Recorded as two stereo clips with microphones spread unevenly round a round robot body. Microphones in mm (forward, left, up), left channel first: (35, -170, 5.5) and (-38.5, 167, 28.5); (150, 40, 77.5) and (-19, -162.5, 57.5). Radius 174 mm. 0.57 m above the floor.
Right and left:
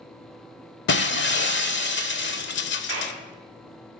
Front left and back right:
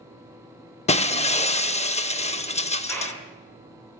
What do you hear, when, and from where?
0.9 s breaking glass: 15° right, 0.8 m
2.9 s a clap: 135° left, 7.5 m